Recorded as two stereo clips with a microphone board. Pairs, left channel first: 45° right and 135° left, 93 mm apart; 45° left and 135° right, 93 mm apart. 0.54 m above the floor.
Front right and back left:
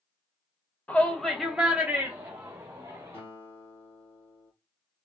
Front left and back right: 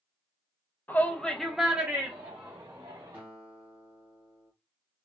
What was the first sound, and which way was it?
A shout, 10° left.